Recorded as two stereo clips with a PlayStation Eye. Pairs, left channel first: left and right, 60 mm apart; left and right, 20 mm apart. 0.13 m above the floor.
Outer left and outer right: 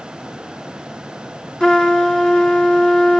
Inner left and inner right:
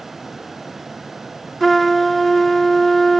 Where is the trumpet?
15° left (ahead or behind), 0.8 m.